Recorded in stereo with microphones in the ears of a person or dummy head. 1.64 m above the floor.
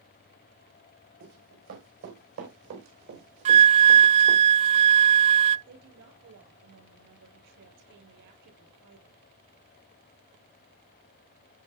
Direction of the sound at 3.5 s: 30° right (ahead or behind).